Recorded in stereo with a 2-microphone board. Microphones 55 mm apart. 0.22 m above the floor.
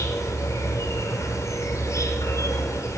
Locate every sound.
0.0 s an insect: 70° left (ahead or behind), 1.1 m